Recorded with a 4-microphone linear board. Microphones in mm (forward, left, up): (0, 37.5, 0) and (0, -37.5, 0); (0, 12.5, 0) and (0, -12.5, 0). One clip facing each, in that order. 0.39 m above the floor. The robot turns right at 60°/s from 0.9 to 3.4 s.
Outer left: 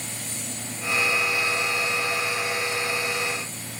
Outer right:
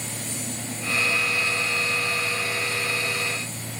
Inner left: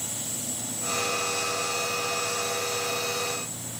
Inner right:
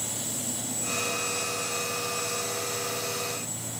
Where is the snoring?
I don't hear snoring.